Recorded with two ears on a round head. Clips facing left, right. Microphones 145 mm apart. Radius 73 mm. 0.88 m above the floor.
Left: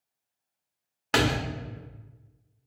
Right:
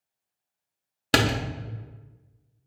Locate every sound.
1.1 s a door slam: 40° right (ahead or behind), 0.8 m